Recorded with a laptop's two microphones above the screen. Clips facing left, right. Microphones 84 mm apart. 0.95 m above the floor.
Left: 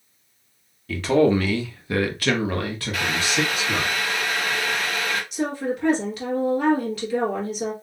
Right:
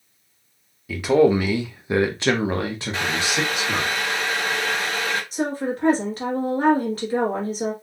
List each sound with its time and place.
0.9 s a man speaking: 10° right (ahead or behind), 1.0 m; by 3.9 s 15° right (ahead or behind), 1.1 m
2.9 s boiling: 30° right (ahead or behind), 0.7 m
5.3 s a woman speaking: 40° right (ahead or behind), 1.2 m